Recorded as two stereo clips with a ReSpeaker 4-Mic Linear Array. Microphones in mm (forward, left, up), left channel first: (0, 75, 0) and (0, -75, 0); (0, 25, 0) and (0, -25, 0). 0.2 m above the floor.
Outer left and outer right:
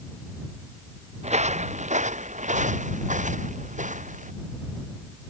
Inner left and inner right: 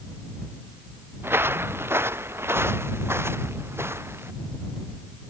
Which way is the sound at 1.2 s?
50° right (ahead or behind).